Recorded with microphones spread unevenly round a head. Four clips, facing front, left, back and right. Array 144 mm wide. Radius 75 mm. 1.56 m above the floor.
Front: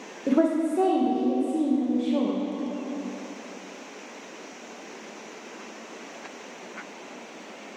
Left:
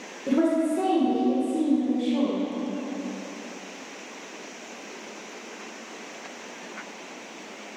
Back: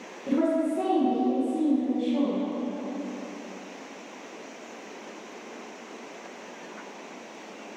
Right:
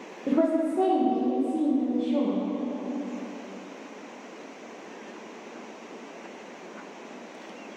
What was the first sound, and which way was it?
A woman speaking, 15° right.